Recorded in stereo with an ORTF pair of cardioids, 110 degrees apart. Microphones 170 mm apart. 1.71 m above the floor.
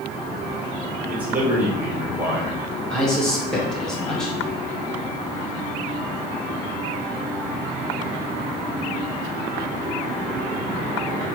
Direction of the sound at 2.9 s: 5° left.